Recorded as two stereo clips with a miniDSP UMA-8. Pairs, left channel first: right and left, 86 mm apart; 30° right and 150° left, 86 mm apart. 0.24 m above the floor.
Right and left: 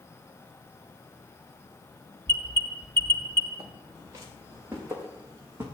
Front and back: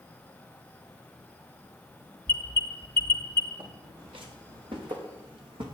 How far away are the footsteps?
About 4.5 m.